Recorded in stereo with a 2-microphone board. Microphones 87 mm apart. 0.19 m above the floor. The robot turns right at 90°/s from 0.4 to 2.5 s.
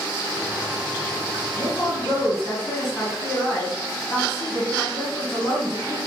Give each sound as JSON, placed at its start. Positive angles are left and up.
{"t": 1.6, "sound": "a woman speaking", "azimuth_deg": 55, "distance_m": 2.0}